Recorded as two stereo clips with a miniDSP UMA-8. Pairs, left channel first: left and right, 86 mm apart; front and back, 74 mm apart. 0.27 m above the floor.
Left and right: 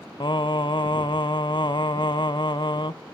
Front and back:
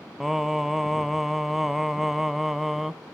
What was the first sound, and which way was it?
Singing, 95° left.